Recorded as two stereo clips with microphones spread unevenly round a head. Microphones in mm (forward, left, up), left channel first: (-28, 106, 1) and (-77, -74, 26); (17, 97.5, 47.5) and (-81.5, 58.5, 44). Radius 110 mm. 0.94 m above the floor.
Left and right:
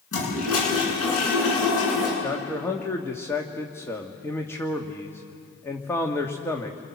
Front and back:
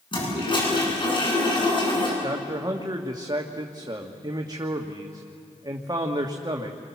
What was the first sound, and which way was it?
A toilet flushing, 60° left.